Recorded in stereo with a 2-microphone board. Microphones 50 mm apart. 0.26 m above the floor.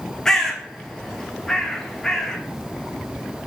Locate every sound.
0.2 s a bird: 10° left (ahead or behind), 0.9 m